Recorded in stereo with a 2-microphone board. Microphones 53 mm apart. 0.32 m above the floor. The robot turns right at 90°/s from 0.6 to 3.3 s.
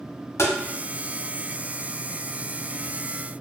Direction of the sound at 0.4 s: 60° left (ahead or behind).